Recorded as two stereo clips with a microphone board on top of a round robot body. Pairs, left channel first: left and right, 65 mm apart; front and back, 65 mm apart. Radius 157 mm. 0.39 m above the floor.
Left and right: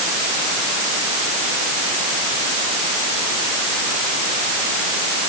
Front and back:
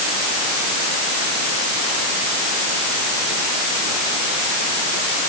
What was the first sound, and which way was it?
Only background noise.